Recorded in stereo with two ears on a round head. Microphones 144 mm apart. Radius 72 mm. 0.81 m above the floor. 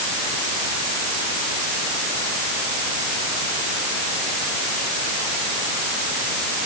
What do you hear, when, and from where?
Only background noise.